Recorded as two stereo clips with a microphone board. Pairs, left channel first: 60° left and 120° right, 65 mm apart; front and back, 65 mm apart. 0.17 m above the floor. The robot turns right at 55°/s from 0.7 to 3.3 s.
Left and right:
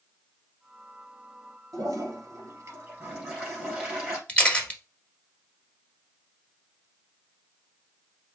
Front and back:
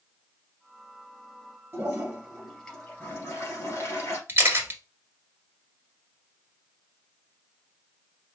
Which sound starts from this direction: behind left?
A camera shutter, at 4.3 s.